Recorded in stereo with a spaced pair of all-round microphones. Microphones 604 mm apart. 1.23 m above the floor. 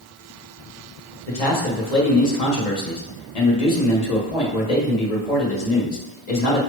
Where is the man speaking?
85° left, 1.1 m.